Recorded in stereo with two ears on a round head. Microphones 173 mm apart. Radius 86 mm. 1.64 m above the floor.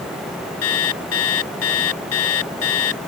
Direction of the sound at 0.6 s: 85° left.